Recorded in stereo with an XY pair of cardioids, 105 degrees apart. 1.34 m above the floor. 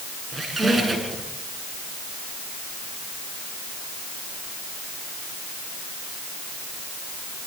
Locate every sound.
0.3 s a squeak: 30° right, 7 m